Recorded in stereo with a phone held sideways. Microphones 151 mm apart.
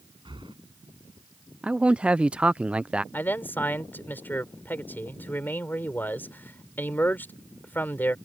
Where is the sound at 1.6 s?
5° right (ahead or behind).